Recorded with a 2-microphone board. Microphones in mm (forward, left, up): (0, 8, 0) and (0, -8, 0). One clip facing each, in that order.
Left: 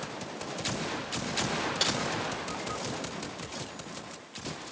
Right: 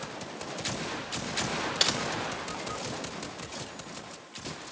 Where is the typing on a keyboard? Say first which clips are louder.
Right 3 dB; 25° right (ahead or behind), 1.0 m.